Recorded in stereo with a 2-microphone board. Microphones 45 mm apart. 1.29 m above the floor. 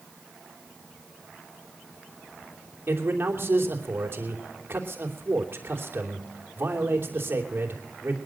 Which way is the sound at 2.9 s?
50° right (ahead or behind).